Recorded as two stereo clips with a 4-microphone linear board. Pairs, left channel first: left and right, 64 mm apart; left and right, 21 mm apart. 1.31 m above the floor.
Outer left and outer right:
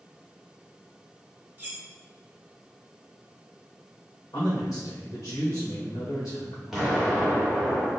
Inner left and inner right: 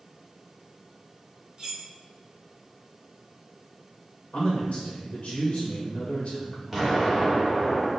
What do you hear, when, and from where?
1.6 s cutlery clinking: 30° right (ahead or behind), 0.9 m
4.3 s a man speaking: 60° left (ahead or behind), 1.2 m
6.7 s an explosion: 5° right (ahead or behind), 1.5 m